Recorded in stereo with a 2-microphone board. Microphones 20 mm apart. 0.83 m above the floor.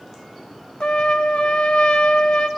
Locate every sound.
0.8 s a trumpet: 50° left (ahead or behind), 1.1 m